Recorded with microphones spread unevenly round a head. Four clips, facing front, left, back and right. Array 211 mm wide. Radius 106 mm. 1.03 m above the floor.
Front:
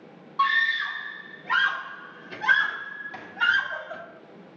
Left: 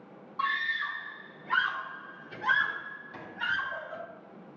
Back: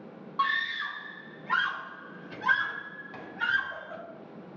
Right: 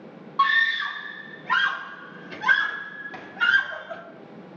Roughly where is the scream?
Right.